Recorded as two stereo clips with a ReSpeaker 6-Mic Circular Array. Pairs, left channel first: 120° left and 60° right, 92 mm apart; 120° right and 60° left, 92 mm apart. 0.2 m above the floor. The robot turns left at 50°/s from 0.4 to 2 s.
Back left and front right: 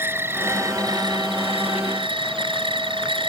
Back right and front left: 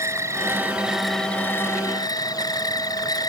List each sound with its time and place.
0.0 s an insect: 5° left; by 3.3 s 75° right